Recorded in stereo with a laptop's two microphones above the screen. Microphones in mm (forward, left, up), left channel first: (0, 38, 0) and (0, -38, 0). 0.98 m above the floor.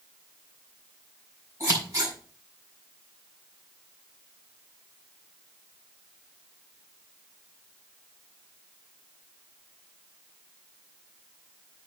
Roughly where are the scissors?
Right.